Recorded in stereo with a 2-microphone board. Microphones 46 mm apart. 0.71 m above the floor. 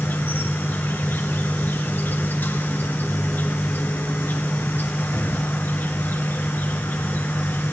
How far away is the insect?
About 2 m.